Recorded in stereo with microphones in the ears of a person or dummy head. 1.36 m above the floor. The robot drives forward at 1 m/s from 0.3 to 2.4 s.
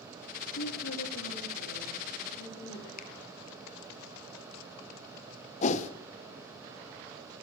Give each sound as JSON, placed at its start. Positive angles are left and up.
{"t": 0.6, "sound": "a woman speaking", "side_deg": 85, "distance_m": 2.5}
{"t": 3.0, "sound": "a finger snap", "side_deg": 50, "distance_m": 0.8}
{"t": 5.6, "sound": "a whoosh", "side_deg": 45, "distance_m": 0.7}